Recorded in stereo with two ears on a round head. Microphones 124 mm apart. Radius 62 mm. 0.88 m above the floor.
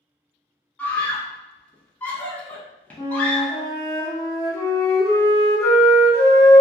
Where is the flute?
25° left (ahead or behind), 1.4 m.